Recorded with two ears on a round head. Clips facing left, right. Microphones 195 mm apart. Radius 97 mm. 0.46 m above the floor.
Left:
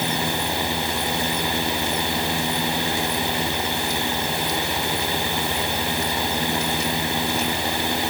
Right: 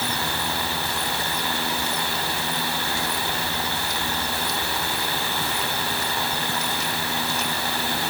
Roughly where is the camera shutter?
I don't hear a camera shutter.